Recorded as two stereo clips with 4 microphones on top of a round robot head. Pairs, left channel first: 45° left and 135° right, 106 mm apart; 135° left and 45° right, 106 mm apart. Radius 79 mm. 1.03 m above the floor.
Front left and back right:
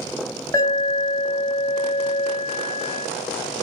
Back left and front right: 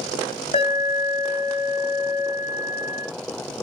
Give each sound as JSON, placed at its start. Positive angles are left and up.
{"t": 0.5, "sound": "an alarm", "azimuth_deg": 100, "distance_m": 3.5}